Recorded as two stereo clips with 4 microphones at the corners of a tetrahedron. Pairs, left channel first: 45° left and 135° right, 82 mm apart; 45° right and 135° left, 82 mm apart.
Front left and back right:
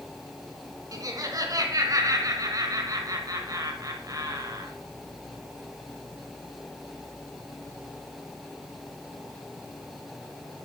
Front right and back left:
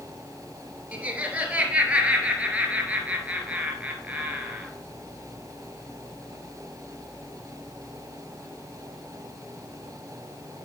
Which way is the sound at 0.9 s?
155° right.